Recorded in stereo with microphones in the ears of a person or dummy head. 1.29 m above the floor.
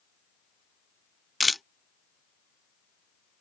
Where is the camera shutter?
Centre (ahead or behind).